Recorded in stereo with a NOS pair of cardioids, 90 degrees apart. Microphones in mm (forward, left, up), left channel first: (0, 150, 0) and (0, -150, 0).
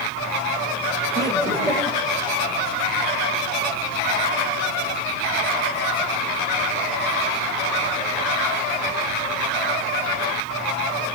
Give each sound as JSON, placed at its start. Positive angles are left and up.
{"t": 1.1, "sound": "laughter", "azimuth_deg": 10, "distance_m": 5.0}